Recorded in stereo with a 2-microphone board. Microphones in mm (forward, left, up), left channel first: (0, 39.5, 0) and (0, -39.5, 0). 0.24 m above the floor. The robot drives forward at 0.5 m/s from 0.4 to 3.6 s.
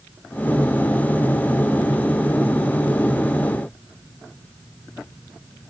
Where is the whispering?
No whispering in this recording.